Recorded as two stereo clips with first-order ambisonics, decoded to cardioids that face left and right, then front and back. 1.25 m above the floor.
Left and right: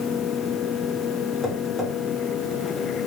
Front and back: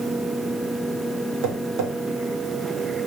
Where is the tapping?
Straight behind, 1.9 m.